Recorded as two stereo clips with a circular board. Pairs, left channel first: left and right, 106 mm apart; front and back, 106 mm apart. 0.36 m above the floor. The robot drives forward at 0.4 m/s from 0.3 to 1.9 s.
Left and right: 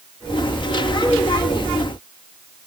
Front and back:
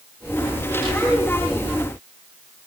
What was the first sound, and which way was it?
Only background noise.